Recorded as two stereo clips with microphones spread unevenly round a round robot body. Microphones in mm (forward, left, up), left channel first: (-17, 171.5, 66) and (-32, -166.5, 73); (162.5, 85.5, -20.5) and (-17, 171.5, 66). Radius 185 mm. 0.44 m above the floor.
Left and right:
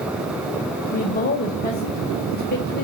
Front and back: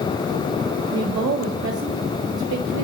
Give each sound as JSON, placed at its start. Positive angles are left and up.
{"t": 0.9, "sound": "a woman speaking", "azimuth_deg": 150, "distance_m": 2.0}